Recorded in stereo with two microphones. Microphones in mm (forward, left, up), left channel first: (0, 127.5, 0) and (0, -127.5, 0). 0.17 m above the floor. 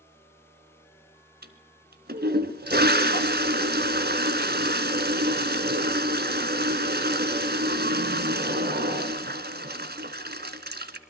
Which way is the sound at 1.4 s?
40° right (ahead or behind).